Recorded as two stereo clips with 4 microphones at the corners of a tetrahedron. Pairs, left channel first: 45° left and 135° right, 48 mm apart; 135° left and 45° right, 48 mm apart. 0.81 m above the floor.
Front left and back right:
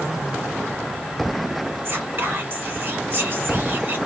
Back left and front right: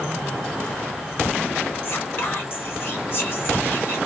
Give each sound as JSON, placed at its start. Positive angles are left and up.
{"t": 1.9, "sound": "whispering", "azimuth_deg": 175, "distance_m": 1.7}